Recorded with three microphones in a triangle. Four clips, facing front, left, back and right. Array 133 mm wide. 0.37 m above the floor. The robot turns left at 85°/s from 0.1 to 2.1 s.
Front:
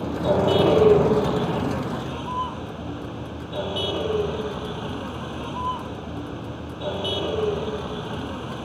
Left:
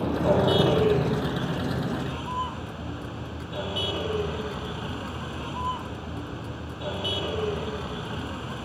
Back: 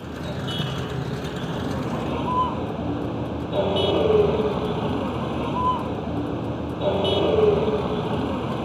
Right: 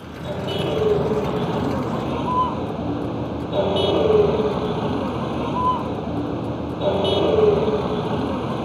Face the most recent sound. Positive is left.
turn(degrees=-115)